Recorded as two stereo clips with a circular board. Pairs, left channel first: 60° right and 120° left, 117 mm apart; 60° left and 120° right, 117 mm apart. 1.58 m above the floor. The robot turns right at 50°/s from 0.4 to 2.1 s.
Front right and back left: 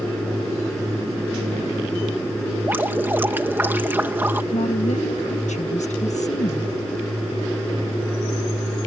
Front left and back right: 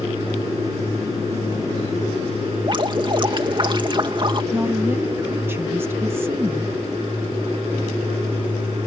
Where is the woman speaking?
50° right.